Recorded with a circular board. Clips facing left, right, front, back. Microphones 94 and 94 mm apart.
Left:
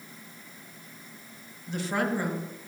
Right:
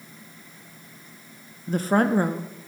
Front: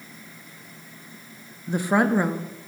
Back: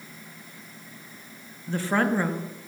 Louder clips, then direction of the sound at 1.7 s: Right 7 dB, front 3 dB; 65° right.